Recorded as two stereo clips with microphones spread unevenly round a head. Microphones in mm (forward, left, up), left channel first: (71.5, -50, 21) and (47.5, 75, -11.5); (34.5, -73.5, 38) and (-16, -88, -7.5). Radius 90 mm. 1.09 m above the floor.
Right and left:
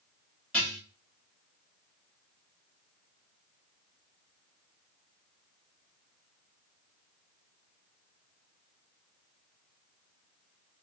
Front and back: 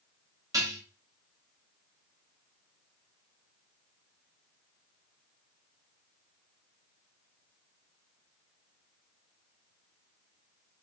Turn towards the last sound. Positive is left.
turn(degrees=-165)